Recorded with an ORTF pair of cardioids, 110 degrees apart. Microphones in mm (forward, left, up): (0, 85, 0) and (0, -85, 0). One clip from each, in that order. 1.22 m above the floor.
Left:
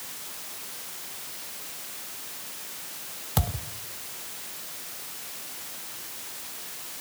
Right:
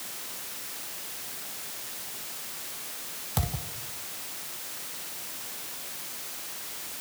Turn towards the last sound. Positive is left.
turn(degrees=25)